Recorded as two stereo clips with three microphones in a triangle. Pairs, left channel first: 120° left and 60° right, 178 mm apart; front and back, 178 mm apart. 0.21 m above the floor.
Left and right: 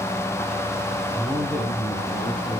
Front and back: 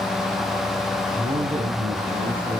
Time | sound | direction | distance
1.1 | a man speaking | 140° right | 1.9 m